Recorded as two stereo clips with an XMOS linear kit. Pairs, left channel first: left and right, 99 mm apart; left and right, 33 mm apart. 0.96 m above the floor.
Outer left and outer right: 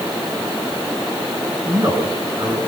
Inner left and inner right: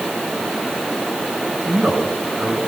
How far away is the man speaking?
About 9 m.